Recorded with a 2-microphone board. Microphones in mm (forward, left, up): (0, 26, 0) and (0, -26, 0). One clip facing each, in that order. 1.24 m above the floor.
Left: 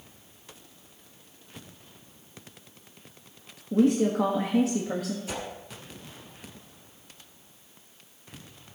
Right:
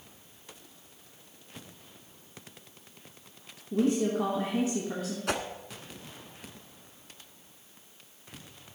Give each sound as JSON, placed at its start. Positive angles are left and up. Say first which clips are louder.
{"t": 3.7, "sound": "a woman speaking", "louder": "left 4 dB", "side_deg": 90, "distance_m": 1.6}
{"t": 5.3, "sound": "a whoosh", "louder": "right 4 dB", "side_deg": -65, "distance_m": 1.3}